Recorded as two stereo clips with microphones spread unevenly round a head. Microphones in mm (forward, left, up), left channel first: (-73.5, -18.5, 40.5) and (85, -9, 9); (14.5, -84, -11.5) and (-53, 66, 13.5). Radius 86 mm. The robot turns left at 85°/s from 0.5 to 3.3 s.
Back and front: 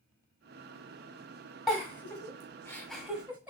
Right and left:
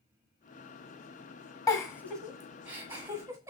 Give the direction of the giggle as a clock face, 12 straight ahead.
4 o'clock.